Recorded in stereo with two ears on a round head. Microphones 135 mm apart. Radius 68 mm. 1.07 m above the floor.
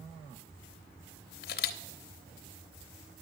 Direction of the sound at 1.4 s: 70° left (ahead or behind).